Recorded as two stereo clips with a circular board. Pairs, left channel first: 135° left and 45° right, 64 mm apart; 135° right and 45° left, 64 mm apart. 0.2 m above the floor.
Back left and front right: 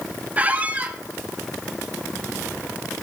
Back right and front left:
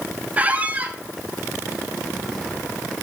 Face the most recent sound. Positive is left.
turn(degrees=0)